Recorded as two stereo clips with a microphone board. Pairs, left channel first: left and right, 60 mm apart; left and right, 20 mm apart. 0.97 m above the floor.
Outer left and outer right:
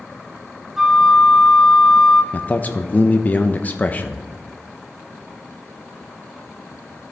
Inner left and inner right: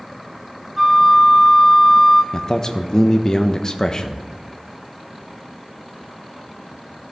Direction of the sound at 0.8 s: 5° right (ahead or behind).